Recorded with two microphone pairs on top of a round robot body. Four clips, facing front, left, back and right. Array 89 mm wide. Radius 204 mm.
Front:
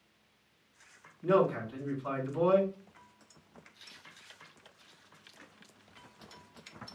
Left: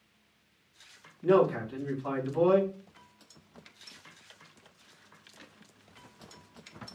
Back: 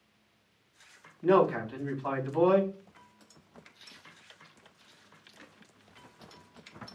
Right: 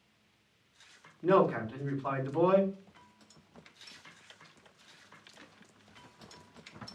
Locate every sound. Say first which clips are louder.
1.2 s a man speaking: left 2 dB, back 3 dB; 155° right, 3 m